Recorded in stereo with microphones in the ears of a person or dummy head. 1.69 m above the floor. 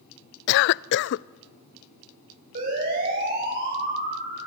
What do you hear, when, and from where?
0.5 s a cough: 65° left (ahead or behind), 0.5 m
2.5 s a siren: 50° right (ahead or behind), 9 m; by 4.5 s 55° right (ahead or behind), 8 m